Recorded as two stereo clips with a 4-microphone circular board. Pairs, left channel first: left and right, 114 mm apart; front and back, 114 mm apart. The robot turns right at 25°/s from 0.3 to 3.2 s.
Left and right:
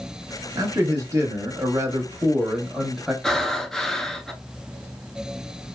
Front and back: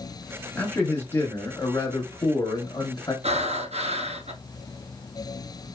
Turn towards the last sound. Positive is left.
turn(degrees=175)